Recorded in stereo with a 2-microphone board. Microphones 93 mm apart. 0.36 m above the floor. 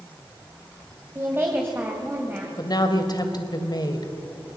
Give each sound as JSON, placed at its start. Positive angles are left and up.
{"t": 1.1, "sound": "a woman speaking", "side_deg": -25, "distance_m": 2.0}
{"t": 2.6, "sound": "a woman speaking", "side_deg": 50, "distance_m": 2.0}